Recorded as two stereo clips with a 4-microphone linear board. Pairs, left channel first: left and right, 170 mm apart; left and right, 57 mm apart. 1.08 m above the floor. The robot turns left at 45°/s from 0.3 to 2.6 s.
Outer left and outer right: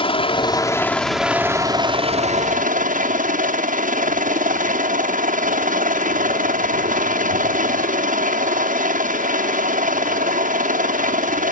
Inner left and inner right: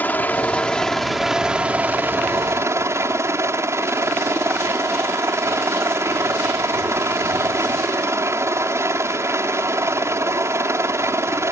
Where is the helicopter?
40° left; by 11.5 s 65° right.